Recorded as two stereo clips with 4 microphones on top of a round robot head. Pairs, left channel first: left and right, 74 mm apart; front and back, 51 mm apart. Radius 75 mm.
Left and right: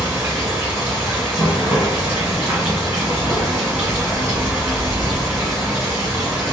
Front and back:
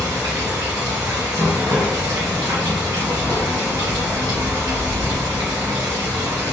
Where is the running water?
155° right, 1.5 m.